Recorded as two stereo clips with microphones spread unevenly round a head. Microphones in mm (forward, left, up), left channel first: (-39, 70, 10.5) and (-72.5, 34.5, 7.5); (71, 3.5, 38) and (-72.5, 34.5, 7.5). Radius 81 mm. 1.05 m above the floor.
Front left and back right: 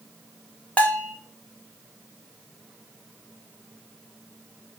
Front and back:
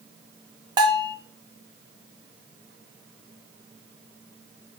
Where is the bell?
110° left, 1.1 m.